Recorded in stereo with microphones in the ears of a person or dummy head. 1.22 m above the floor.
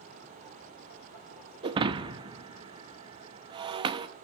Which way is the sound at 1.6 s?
30° right (ahead or behind).